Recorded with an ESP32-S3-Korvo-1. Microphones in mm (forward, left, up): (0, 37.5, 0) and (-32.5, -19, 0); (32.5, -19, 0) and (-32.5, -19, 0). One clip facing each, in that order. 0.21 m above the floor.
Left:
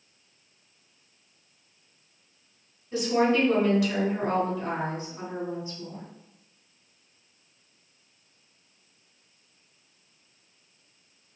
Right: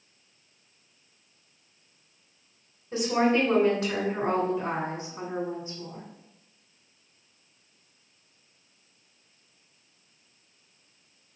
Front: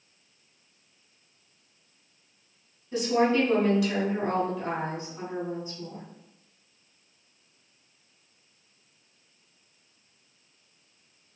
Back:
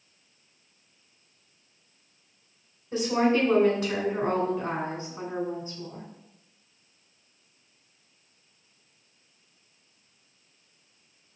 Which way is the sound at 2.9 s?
160° right.